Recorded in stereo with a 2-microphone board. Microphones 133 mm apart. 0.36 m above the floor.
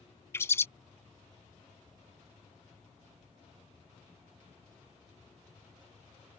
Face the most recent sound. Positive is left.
turn(degrees=20)  # may be behind; listen again after turning